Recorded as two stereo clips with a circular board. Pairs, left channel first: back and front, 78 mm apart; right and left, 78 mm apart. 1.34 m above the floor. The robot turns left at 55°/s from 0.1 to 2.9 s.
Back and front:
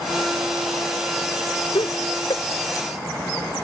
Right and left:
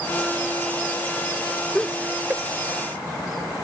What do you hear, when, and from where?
1.8 s laughter: 170° right; by 2.4 s 155° left